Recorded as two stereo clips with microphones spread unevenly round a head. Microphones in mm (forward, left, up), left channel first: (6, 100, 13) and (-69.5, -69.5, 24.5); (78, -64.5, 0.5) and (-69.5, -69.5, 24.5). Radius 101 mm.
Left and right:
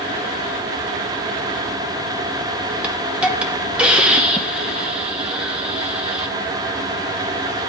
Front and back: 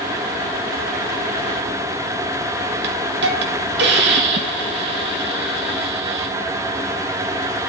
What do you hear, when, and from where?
2.8 s a hiss: 160° left, 1.2 m